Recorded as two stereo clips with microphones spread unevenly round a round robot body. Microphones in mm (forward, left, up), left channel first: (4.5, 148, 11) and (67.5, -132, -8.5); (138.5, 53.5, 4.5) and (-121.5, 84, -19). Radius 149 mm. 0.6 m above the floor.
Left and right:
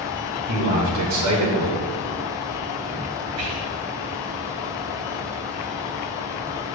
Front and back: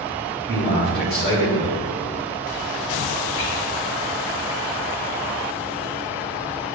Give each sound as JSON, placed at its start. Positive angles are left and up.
{"t": 0.5, "sound": "a man speaking", "azimuth_deg": -70, "distance_m": 2.5}
{"t": 3.4, "sound": "whispering", "azimuth_deg": -55, "distance_m": 2.0}